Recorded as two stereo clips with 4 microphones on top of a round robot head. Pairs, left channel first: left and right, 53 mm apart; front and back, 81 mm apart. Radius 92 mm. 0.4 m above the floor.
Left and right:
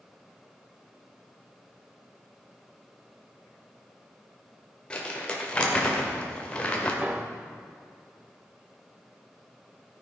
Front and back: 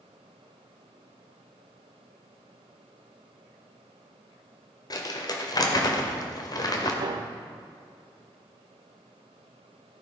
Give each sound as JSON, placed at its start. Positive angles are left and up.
{"t": 4.9, "sound": "crumpling", "azimuth_deg": 25, "distance_m": 1.9}
{"t": 7.0, "sound": "a piano", "azimuth_deg": -160, "distance_m": 0.6}